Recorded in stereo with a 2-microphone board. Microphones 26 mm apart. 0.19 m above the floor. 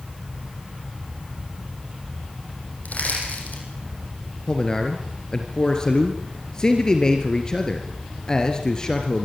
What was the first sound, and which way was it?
Crushing, 80° left.